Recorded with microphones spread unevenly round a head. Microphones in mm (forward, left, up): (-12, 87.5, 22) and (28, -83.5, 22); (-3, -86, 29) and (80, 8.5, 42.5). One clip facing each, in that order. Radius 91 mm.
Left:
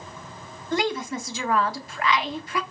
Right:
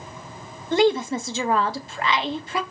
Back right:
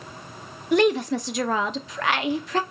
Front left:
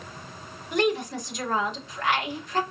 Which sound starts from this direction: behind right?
A woman speaking, at 0.7 s.